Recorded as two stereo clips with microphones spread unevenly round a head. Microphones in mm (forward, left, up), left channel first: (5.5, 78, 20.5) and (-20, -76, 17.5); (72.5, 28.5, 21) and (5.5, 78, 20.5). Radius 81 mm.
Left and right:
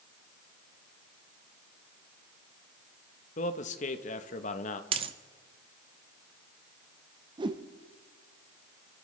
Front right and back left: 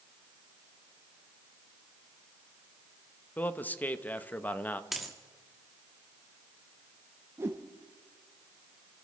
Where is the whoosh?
155° right, 0.7 m.